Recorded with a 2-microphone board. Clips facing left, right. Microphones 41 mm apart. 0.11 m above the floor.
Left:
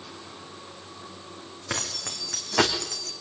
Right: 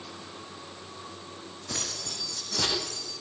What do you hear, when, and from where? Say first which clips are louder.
1.7 s keys jangling: left 4 dB; 75° left (ahead or behind), 4.5 m; by 3.1 s 80° left, 3.5 m